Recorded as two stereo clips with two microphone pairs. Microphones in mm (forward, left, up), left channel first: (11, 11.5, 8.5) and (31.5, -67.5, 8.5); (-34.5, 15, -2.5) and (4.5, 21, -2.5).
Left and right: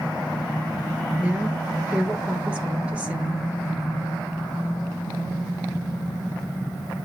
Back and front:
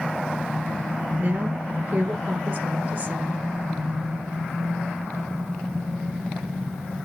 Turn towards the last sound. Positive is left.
turn(degrees=-5)